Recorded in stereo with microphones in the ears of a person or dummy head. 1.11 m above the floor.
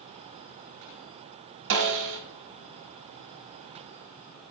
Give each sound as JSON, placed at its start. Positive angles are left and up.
{"t": 1.7, "sound": "a snare drum", "side_deg": -65, "distance_m": 1.3}